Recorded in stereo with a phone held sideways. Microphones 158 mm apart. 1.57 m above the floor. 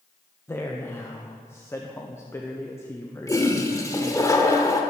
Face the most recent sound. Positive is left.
turn(degrees=20)  # may be behind; listen again after turning